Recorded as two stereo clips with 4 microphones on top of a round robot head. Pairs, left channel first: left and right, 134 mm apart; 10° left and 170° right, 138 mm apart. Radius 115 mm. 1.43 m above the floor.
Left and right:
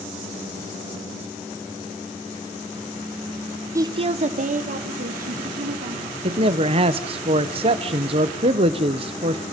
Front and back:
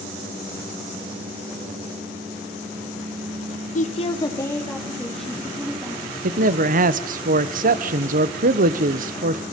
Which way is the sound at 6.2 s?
145° right.